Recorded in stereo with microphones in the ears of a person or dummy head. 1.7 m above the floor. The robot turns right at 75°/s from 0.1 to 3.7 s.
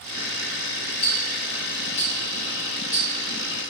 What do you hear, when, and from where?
1.0 s ticking: 45° left (ahead or behind), 3 m; by 3.0 s 20° right (ahead or behind), 3 m